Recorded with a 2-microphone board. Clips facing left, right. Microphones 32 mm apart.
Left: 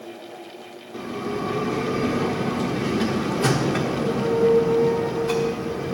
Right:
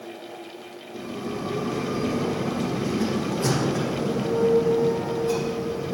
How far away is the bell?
About 1.1 m.